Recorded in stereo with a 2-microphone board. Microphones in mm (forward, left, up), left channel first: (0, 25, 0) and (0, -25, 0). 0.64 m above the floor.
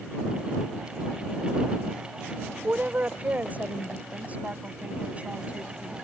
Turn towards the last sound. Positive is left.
turn(degrees=-25)  # may be behind; listen again after turning